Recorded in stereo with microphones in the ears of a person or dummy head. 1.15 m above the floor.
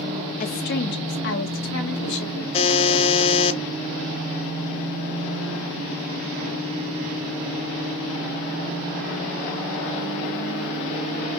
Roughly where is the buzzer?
Left.